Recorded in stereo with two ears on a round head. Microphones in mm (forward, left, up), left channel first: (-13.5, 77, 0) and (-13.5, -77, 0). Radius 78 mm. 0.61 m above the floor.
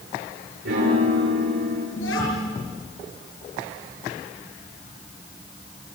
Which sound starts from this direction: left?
A child speaking, at 2.0 s.